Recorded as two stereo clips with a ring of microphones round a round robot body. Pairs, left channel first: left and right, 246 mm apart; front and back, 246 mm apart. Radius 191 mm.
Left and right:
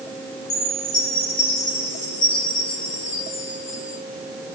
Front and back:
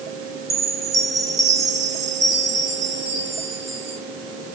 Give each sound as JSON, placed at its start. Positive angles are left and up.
{"t": 0.5, "sound": "a chime", "azimuth_deg": 105, "distance_m": 6.5}